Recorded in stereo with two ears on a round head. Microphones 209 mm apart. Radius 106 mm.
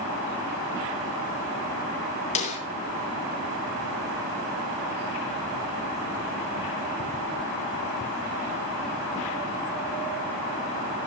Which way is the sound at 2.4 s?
30° left (ahead or behind).